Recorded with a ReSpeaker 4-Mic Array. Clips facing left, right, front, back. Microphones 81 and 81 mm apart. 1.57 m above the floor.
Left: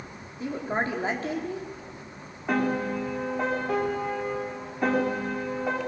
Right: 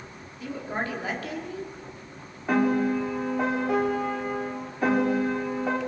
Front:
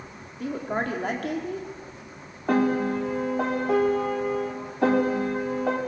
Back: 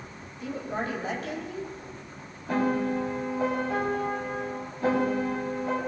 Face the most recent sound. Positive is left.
turn(degrees=0)